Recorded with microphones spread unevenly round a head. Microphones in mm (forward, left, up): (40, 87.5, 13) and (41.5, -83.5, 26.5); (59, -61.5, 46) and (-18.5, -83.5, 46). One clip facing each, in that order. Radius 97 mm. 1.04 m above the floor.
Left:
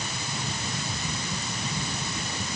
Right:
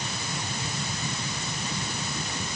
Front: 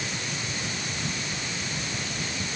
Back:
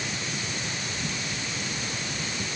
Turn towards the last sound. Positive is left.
No sound to turn to.